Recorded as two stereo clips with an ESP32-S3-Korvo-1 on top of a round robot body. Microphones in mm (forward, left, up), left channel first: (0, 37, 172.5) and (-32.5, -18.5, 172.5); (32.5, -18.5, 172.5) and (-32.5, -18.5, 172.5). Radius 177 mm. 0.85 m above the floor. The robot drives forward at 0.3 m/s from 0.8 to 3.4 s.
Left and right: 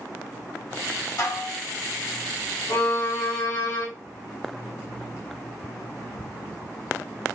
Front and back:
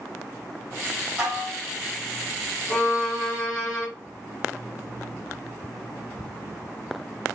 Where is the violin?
80° left, 1.7 m; by 3.9 s 85° left, 1.7 m.